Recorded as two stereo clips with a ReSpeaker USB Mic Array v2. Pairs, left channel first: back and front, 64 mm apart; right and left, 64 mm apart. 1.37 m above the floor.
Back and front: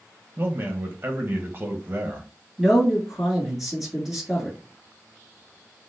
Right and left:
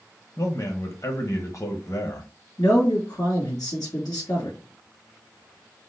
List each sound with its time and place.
0.4 s a man speaking: 55° right, 1.0 m
2.6 s a man speaking: 85° right, 2.5 m